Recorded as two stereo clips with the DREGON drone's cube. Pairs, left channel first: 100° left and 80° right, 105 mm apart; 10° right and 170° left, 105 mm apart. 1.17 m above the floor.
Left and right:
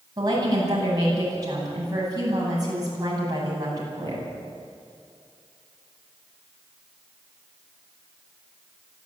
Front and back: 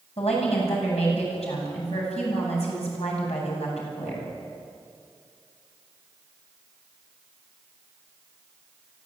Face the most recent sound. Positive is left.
turn(degrees=-25)